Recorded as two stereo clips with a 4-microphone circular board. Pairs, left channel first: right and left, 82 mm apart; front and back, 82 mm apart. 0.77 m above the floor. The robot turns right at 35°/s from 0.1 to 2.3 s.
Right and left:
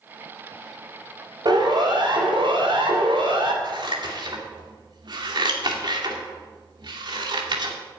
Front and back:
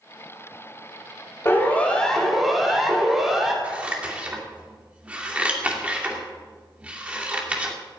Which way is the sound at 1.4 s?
60° left.